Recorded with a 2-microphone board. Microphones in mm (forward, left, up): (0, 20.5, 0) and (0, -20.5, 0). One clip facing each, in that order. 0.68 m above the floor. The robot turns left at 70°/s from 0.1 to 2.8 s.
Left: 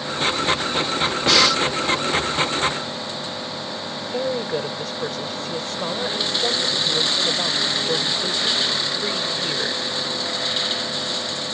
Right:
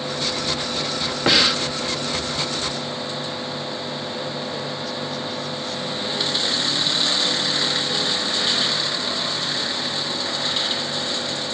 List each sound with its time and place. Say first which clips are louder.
1.3 s breathing: left 1 dB; 20° right (ahead or behind); by 1.6 s 10° right (ahead or behind)
4.0 s a woman speaking: left 4 dB; 55° left (ahead or behind)